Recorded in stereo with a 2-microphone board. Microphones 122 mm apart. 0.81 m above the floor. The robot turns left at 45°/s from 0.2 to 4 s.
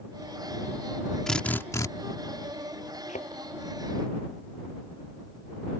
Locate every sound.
1.3 s a drill: 5° left (ahead or behind); by 1.9 s 30° left (ahead or behind)
3.1 s a thud: 75° left (ahead or behind); by 3.3 s 70° left (ahead or behind)